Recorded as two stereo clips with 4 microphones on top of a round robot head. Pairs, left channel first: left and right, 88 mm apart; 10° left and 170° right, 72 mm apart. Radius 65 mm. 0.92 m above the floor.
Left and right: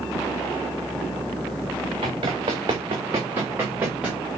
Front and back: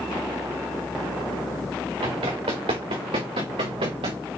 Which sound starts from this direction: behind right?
Running footsteps, at 2.0 s.